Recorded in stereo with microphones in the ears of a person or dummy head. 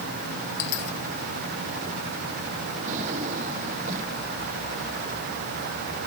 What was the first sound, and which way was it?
A dropped coin, 65° left (ahead or behind).